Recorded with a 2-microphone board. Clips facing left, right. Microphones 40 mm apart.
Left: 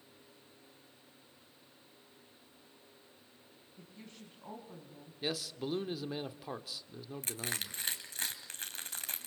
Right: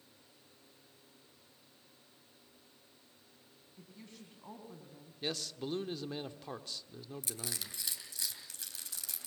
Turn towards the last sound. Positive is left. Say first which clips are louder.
# left 7 dB
turn(degrees=45)  # may be behind; listen again after turning